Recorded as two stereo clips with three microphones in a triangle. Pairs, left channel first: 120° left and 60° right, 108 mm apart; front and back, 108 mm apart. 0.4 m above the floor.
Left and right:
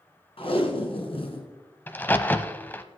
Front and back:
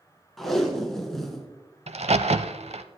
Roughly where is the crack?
Behind.